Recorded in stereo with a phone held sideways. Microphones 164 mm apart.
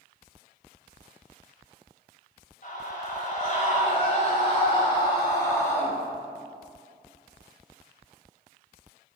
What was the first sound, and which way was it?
A scream, 55° left (ahead or behind).